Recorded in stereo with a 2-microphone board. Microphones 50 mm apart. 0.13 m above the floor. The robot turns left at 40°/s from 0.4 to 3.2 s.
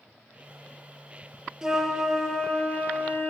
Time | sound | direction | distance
1.6 | a flute | 165° right | 1.0 m